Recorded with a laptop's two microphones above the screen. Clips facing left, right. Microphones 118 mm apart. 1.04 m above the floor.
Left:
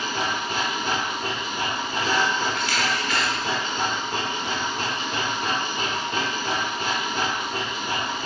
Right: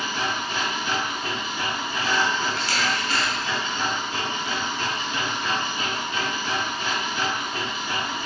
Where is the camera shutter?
35° right (ahead or behind), 1.1 m.